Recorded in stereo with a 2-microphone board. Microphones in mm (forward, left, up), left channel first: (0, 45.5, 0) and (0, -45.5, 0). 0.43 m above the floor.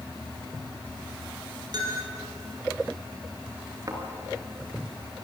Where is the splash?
I don't hear a splash.